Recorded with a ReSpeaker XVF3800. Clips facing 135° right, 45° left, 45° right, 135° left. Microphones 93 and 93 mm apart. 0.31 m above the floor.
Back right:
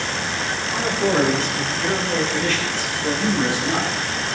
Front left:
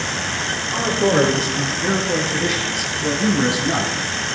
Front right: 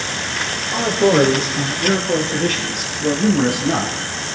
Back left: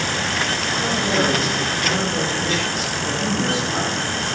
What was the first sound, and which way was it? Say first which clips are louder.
A man speaking: front left 3 dB, front right 9 dB; 30° right.